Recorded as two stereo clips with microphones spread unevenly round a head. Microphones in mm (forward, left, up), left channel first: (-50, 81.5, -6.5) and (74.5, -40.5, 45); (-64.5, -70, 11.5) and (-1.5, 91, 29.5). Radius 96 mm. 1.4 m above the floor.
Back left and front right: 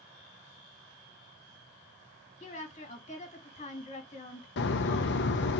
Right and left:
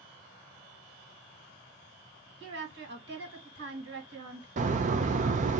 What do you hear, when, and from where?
2.4 s a woman speaking: 85° left, 2.0 m
4.6 s a bird: 105° left, 0.6 m